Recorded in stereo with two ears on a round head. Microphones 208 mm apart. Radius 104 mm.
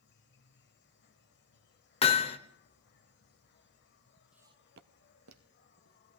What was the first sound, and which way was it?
An insect, 50° left (ahead or behind).